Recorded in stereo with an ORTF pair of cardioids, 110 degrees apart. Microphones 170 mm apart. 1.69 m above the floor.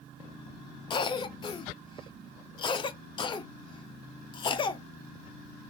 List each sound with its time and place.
0.9 s a cough: 30° left, 0.6 m